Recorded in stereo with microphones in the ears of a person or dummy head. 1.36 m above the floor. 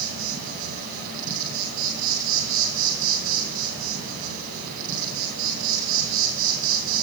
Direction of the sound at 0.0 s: 50° right (ahead or behind).